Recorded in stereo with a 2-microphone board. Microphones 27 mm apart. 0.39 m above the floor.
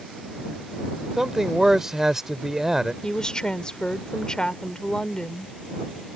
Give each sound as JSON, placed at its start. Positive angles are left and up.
{"t": 1.2, "sound": "a man speaking", "side_deg": -15}
{"t": 3.0, "sound": "a woman speaking", "side_deg": 30}